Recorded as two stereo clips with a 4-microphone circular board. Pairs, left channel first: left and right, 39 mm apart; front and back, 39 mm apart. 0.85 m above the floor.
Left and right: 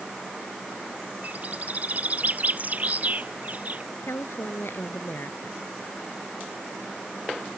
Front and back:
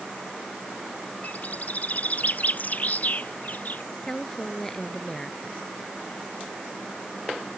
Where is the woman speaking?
80° left.